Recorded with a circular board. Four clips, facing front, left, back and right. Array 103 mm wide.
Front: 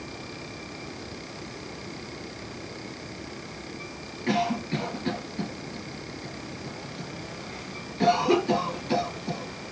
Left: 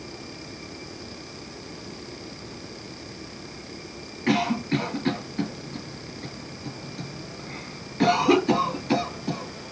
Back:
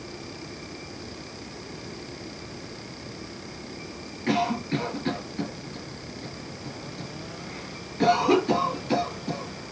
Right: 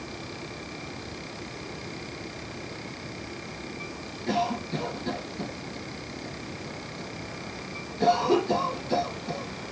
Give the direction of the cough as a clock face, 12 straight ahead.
9 o'clock.